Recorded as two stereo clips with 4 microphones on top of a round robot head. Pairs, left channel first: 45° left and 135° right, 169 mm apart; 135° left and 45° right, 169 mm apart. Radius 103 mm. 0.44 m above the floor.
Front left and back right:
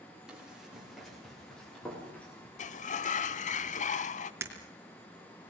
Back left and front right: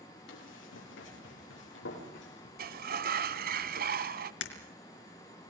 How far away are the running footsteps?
About 9.5 m.